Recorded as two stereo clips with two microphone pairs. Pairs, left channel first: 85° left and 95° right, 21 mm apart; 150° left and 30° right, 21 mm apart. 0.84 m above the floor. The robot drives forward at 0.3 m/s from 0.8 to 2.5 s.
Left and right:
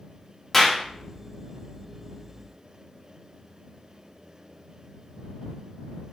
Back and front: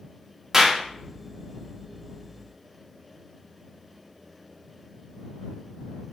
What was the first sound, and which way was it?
A clap, 25° left.